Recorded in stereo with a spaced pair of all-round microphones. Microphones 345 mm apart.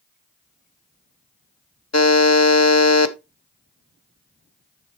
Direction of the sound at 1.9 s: 45° left (ahead or behind).